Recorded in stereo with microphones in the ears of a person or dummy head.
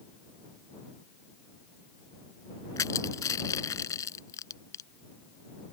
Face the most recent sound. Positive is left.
turn(degrees=20)  # may be behind; listen again after turning